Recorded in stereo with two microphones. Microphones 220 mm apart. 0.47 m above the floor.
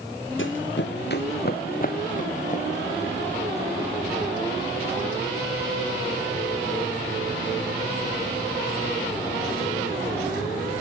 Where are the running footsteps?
65° left (ahead or behind), 1.3 m; by 3.7 s 30° left (ahead or behind), 3.5 m.